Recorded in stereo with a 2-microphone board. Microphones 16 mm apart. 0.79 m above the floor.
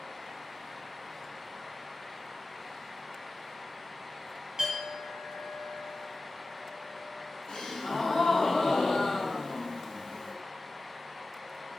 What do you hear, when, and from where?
4.6 s a clink: 45° right (ahead or behind), 2 m
7.5 s a gasp: 50° left (ahead or behind), 1.0 m